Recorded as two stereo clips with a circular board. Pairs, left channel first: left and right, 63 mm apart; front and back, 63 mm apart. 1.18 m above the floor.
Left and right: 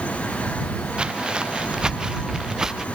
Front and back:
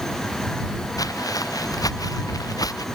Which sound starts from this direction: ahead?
Footsteps, at 1.0 s.